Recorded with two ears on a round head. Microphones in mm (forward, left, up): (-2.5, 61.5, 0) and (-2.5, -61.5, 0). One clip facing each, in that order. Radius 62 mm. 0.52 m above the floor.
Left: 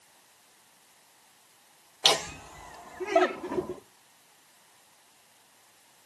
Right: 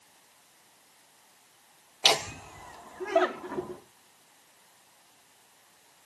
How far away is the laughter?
About 0.9 m.